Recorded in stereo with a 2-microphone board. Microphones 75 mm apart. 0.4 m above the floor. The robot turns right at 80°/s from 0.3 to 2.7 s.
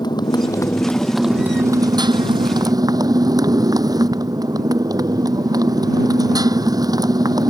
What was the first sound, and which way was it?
A motorcycle, 110° left.